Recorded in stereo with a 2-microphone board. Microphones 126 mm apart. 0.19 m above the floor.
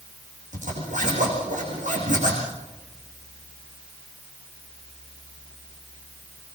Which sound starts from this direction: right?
A zipper, at 0.5 s.